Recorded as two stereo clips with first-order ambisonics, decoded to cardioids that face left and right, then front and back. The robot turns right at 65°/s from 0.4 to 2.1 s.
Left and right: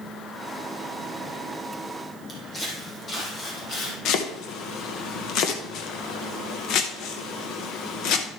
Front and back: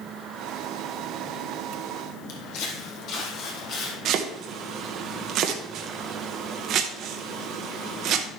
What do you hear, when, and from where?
2.3 s footsteps: 10° left, 2.5 m; by 4.0 s 45° left, 2.5 m
4.0 s chopping: 130° left, 1.3 m